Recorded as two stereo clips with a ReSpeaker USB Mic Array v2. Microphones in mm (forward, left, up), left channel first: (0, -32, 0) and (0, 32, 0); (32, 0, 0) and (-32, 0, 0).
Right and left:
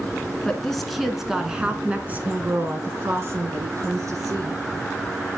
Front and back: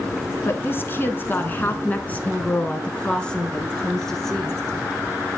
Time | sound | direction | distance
0.5 | a woman speaking | 15° right | 1.8 m